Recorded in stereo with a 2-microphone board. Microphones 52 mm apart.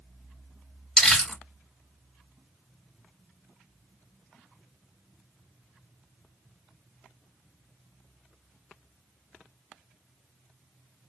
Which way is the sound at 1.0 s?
10° left (ahead or behind).